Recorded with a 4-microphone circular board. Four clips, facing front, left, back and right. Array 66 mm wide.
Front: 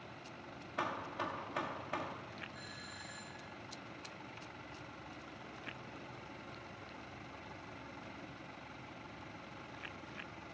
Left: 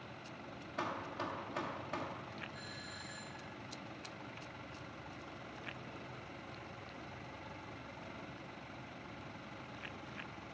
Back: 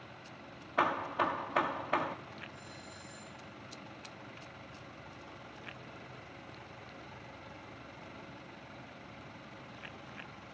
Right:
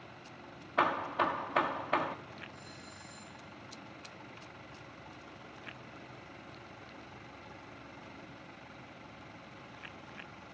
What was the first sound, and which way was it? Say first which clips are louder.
Hammering: right 11 dB, back 9 dB; 125° right.